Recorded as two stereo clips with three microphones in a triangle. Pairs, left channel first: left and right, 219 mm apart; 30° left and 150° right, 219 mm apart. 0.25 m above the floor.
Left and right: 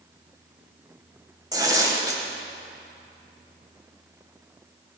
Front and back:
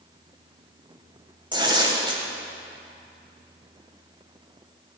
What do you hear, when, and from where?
1.5 s tearing paper: 130° right, 1.4 m